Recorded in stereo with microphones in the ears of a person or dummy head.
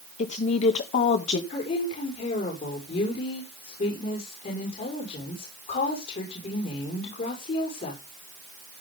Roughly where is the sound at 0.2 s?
Left.